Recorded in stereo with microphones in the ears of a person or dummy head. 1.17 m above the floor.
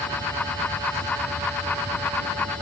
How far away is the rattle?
No rattle in this recording.